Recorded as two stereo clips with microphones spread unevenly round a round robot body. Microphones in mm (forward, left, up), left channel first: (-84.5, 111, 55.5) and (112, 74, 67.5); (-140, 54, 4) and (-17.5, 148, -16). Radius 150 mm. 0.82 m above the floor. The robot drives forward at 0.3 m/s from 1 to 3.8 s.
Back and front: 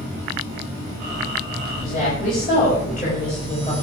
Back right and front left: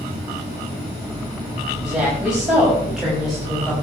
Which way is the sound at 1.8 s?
120° left.